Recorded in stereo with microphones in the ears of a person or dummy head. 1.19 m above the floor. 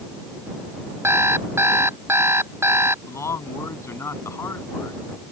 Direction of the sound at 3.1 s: 20° left (ahead or behind).